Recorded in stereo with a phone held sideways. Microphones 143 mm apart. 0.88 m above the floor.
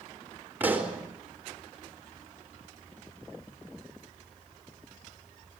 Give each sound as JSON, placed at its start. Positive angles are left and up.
{"t": 0.6, "sound": "a pop", "side_deg": -15, "distance_m": 3.5}